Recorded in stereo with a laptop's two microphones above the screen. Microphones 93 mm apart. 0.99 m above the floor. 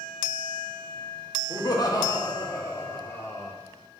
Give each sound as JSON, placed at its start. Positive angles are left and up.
{"t": 1.5, "sound": "laughter", "side_deg": 50, "distance_m": 1.5}